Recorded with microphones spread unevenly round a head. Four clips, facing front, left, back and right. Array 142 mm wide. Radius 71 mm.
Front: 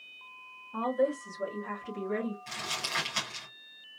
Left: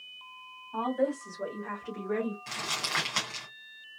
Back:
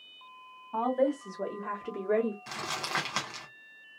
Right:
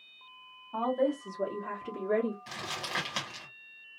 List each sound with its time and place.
0.7 s a woman speaking: 165° right, 2 m; by 2.4 s 160° right, 1.4 m
2.5 s crumpling: 175° left, 1.5 m